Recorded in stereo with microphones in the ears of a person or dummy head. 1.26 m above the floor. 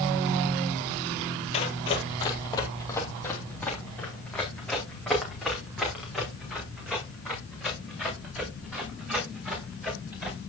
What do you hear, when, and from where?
1.5 s running footsteps: 30° left (ahead or behind), 1.7 m; by 10.4 s 10° right (ahead or behind), 10 m